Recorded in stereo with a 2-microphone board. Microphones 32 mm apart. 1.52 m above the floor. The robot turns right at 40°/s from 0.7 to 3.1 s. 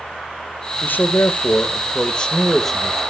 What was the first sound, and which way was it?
A man speaking, 95° left.